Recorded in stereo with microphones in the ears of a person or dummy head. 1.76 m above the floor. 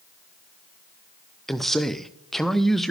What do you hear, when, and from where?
1.5 s a man speaking: 5° left (ahead or behind), 0.5 m